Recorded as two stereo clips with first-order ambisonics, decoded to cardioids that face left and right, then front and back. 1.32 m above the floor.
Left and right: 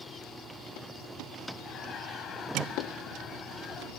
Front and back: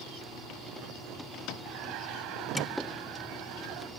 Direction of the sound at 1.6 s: 145° left.